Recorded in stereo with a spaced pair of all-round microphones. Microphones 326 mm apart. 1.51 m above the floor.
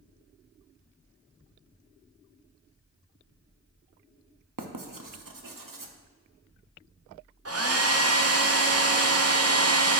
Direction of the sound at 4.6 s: 75° right (ahead or behind).